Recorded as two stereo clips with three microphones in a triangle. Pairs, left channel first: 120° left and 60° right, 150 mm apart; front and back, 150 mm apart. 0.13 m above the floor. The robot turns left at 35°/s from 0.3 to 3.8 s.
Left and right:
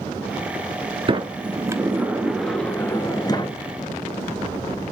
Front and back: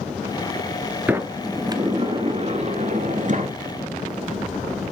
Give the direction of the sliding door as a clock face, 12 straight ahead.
3 o'clock.